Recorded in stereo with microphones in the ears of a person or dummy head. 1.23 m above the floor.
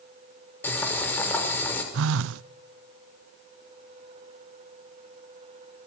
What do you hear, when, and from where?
0.6 s boiling: 10° left (ahead or behind), 5.5 m
1.9 s a phone buzzing: 70° right (ahead or behind), 0.5 m